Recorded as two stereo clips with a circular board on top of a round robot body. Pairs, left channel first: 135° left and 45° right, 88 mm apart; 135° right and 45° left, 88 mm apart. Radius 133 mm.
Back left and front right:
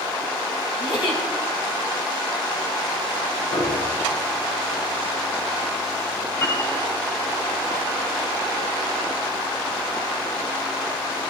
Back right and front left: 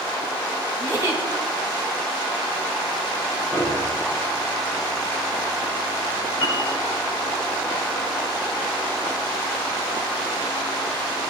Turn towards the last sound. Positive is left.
turn(degrees=-170)